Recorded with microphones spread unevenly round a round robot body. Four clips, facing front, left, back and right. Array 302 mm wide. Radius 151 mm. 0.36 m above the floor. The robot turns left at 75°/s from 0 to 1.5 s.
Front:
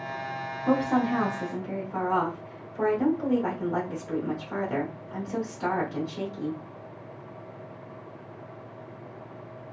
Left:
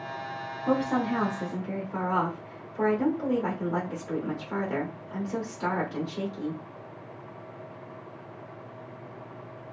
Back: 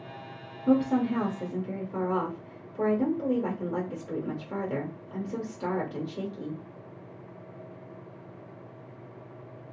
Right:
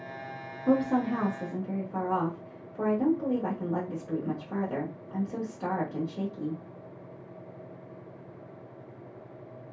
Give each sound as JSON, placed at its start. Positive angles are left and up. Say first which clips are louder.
{"t": 0.7, "sound": "a woman speaking", "louder": "right 1 dB, even", "azimuth_deg": -100, "distance_m": 1.2}